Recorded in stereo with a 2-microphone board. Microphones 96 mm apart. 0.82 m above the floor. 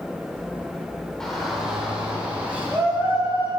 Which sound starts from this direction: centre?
A shout, at 1.2 s.